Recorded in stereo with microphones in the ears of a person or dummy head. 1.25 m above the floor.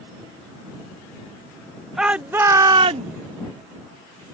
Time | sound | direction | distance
2.0 | a shout | 5° right (ahead or behind) | ?